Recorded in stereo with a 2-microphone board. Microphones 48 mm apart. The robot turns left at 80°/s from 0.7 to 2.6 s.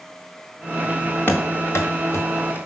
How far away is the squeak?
I don't hear a squeak.